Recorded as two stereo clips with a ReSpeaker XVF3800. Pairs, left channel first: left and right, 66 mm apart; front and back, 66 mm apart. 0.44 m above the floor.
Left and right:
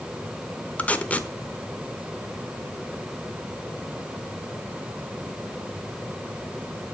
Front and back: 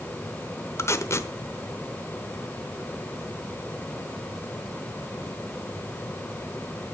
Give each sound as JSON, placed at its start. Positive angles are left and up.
{"t": 0.8, "sound": "tape being pulled", "azimuth_deg": 25, "distance_m": 0.9}